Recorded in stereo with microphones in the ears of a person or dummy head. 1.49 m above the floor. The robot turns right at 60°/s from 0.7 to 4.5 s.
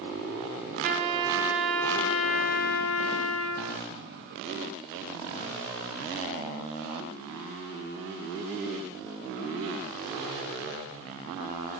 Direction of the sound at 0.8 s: 50° right.